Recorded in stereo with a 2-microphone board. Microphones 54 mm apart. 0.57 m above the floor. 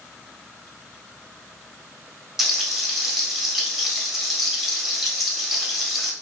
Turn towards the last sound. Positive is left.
turn(degrees=-5)  # may be behind; listen again after turning